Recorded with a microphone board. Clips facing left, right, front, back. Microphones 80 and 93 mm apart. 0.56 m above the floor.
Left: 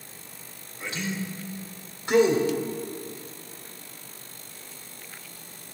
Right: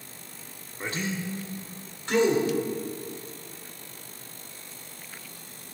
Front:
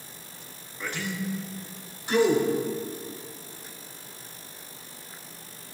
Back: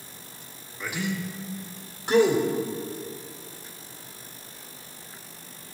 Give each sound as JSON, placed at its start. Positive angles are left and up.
{"t": 0.8, "sound": "a man speaking", "azimuth_deg": -95, "distance_m": 1.2}